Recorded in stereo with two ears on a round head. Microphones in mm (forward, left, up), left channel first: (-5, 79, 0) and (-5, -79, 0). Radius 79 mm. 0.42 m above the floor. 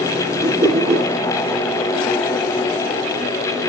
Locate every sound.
0.4 s a whoosh: 15° right (ahead or behind), 5.5 m